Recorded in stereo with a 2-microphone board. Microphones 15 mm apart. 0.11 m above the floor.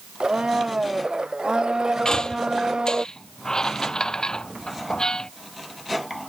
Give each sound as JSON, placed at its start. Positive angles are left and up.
{"t": 0.2, "sound": "a blender", "side_deg": -80}
{"t": 2.0, "sound": "a squeak", "side_deg": 55}